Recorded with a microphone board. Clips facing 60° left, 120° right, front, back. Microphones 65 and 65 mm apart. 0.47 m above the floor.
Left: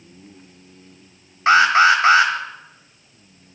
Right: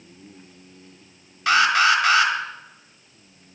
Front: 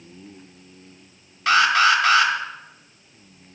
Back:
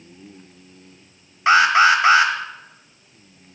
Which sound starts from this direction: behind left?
An alarm, at 1.5 s.